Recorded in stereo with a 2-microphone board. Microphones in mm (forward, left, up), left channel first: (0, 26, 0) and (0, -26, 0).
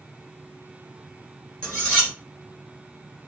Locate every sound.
1.6 s cutlery clinking: 25° left (ahead or behind), 2 m